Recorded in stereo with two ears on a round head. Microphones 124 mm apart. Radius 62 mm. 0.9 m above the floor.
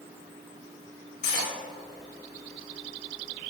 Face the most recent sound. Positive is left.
turn(degrees=60)  # may be behind; listen again after turning